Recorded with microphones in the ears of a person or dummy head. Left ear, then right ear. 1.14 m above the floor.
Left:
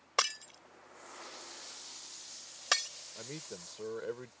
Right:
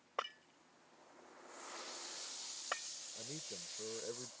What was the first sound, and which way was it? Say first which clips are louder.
Breaking glass: left 11 dB; 80° left.